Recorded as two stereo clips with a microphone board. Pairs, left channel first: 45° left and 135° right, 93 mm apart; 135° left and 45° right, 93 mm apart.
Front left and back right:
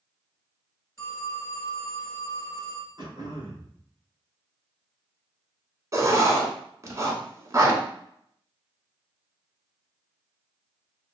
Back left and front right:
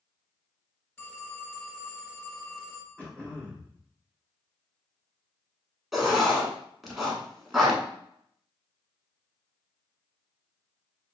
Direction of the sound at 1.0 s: 85° left.